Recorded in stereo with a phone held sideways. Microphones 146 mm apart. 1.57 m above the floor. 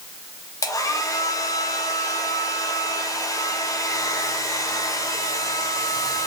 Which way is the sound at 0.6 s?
25° left (ahead or behind).